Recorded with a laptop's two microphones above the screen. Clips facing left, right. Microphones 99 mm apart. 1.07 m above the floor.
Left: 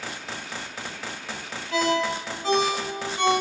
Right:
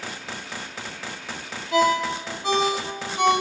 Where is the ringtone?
15° right (ahead or behind), 1.6 m.